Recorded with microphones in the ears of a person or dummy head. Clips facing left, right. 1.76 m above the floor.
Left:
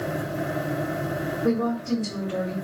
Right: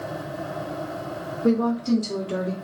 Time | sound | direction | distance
1.4 | a woman speaking | 35° right (ahead or behind) | 0.9 m